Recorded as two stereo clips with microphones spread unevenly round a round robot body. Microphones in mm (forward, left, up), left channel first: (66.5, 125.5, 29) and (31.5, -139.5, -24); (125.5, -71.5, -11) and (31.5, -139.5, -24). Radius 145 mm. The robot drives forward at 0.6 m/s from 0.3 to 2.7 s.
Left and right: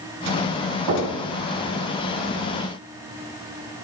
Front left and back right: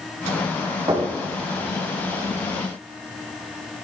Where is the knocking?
95° right, 4 m.